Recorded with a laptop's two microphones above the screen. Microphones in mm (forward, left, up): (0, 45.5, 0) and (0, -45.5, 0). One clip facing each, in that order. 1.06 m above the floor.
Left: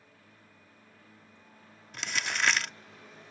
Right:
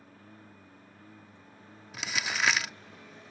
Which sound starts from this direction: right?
A lawn mower, at 0.0 s.